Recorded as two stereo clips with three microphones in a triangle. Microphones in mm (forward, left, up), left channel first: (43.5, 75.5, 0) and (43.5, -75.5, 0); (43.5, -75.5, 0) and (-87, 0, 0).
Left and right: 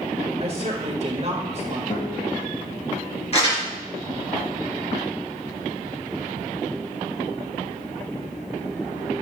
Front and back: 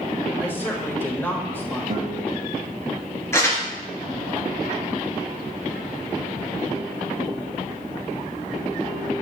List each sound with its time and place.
0.4 s a woman speaking: 100° right, 1.6 m
1.9 s a guitar: 125° left, 2.5 m
3.3 s crumpling: 40° left, 3.5 m